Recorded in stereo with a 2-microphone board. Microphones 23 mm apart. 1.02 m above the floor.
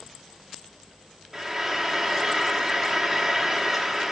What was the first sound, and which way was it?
Frying, centre (ahead or behind).